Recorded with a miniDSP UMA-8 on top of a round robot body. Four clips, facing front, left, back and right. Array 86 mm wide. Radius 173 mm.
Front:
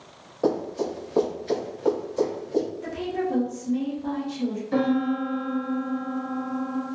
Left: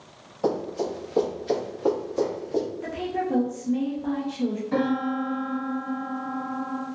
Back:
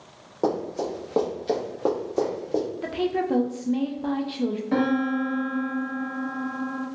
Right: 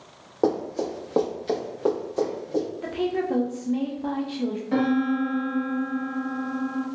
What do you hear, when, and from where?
0.4 s running footsteps: 110° right, 1.5 m; by 2.6 s 170° left, 1.2 m
2.8 s a woman speaking: 160° right, 0.6 m
4.7 s a piano: 155° right, 1.2 m